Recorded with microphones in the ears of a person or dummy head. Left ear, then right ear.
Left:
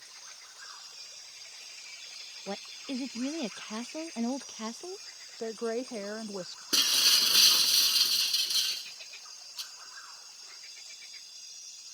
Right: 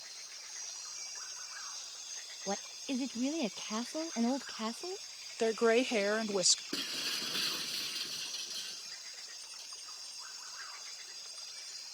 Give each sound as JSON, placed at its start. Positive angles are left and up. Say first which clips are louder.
{"t": 2.5, "sound": "a woman speaking", "louder": "right 1 dB", "side_deg": 0}
{"t": 5.4, "sound": "a woman speaking", "louder": "right 5 dB", "side_deg": -75}
{"t": 6.7, "sound": "breaking glass", "louder": "left 13 dB", "side_deg": 45}